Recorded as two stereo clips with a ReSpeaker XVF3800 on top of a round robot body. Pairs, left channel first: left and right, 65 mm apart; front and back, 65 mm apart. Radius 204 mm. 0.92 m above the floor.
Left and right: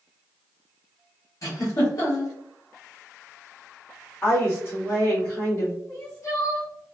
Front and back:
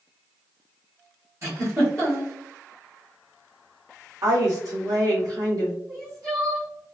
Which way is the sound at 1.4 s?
130° left.